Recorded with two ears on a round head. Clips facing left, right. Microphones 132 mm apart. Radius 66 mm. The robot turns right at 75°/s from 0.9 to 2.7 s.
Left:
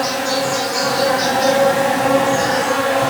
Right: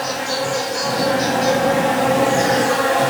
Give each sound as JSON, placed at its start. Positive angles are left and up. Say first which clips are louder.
{"t": 0.0, "sound": "an insect", "louder": "left 3 dB", "azimuth_deg": 90, "distance_m": 2.0}